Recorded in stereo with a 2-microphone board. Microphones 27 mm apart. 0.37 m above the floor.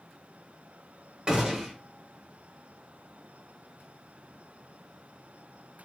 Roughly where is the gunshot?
Right.